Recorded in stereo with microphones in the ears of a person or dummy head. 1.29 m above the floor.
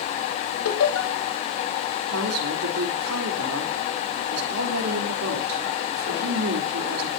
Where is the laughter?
85° left, 2.5 m.